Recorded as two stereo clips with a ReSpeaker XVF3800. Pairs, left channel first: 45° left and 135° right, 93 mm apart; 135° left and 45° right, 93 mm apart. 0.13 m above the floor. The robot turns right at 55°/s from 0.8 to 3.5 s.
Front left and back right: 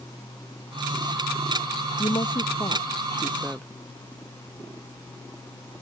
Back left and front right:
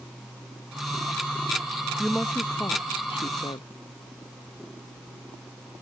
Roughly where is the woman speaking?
Ahead left.